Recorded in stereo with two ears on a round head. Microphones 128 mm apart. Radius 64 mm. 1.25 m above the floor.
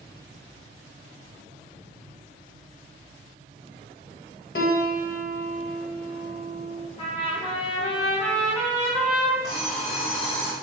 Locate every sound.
4.5 s a piano: 70° left (ahead or behind), 1.4 m
7.0 s a trumpet: 35° left (ahead or behind), 3.5 m
9.4 s an alarm clock: 75° left (ahead or behind), 2.5 m